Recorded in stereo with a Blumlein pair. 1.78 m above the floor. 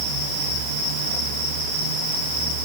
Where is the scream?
I don't hear a scream.